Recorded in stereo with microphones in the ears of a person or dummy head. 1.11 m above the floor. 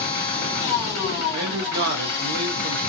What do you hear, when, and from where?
0.0 s a machine running: 20° left (ahead or behind), 1.5 m
1.3 s a man speaking: 50° right (ahead or behind), 0.7 m